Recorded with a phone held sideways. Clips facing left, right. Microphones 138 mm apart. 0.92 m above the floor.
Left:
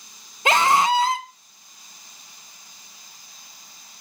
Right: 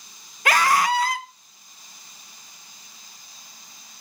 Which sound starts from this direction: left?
A scream, at 0.5 s.